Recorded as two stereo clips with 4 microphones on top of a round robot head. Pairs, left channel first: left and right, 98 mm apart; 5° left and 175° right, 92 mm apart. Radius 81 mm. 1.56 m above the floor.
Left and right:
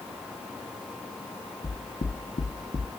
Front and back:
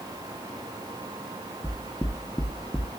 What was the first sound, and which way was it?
Knocking, 80° left.